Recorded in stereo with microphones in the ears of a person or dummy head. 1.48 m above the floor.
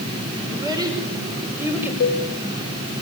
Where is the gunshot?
No gunshot in this recording.